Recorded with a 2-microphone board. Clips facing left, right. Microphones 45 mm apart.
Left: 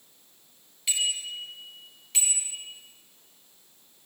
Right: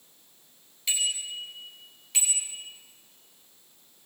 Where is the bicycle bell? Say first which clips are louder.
Left 1 dB; 5° left (ahead or behind), 9 m; by 2.5 s centre (ahead or behind), 8.5 m.